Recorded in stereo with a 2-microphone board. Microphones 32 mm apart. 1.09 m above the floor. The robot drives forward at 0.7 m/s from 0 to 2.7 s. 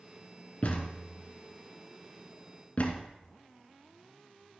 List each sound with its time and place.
0.6 s a thud: 40° left (ahead or behind), 1.6 m; by 3.0 s 45° left (ahead or behind), 1.6 m